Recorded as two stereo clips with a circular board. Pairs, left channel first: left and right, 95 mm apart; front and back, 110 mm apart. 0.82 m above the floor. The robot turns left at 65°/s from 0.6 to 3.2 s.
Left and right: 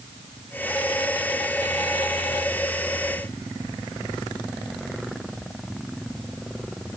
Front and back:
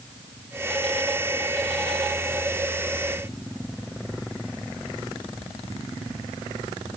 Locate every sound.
Only background noise.